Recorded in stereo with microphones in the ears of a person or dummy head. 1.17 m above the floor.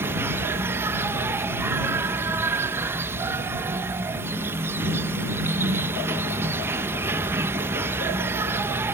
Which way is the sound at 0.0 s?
15° right (ahead or behind).